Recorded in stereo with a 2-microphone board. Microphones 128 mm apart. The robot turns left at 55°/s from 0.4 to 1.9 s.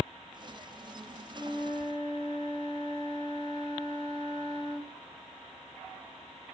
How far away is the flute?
About 2 m.